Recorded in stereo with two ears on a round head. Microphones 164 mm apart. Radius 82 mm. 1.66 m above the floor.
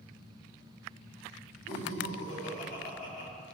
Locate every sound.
1.7 s laughter: 40° left (ahead or behind), 4 m